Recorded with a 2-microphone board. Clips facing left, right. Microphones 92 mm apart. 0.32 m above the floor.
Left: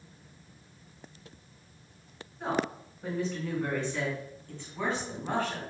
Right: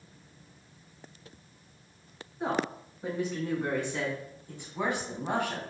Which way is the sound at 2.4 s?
15° right (ahead or behind).